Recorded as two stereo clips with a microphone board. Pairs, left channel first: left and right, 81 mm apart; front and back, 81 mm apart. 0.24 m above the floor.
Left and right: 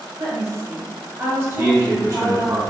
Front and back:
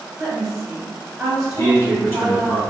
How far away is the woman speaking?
About 1.1 m.